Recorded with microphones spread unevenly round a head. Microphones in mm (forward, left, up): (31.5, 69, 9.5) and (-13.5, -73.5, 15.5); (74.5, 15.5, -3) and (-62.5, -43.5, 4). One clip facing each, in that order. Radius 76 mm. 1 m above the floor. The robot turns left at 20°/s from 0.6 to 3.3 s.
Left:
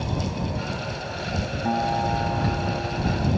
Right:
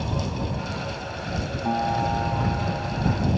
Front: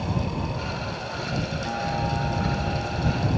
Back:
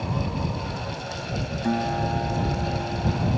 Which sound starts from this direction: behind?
A guitar, at 1.6 s.